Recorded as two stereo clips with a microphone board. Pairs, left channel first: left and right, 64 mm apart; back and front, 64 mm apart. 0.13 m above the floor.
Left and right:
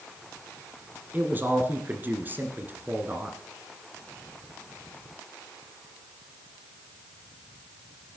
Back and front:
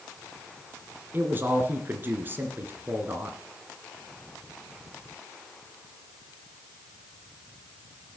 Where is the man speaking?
40° right, 1.7 m.